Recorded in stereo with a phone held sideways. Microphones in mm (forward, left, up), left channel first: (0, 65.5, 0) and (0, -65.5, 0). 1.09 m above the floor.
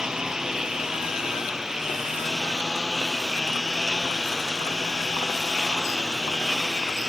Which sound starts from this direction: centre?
A lawn mower, at 0.0 s.